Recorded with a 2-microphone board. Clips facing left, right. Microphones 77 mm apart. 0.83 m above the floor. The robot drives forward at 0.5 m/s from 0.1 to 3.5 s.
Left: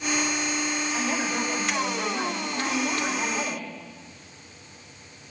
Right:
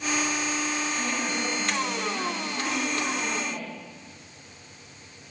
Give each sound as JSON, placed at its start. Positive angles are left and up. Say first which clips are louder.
{"t": 0.9, "sound": "a woman speaking", "louder": "left 2 dB", "side_deg": 50, "distance_m": 5.5}